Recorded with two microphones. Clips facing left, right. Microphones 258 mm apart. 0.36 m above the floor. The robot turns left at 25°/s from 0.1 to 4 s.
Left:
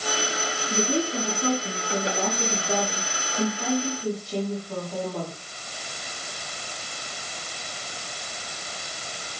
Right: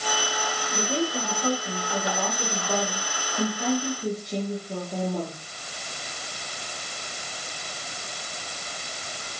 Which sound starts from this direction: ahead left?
A woman speaking, at 0.7 s.